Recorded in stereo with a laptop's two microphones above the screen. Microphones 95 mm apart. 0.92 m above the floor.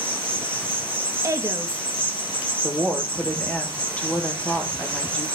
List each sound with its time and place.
0.0 s an insect: 15° left (ahead or behind), 4 m
1.2 s a woman speaking: 35° right (ahead or behind), 1.0 m
2.6 s a woman speaking: 15° left (ahead or behind), 1.6 m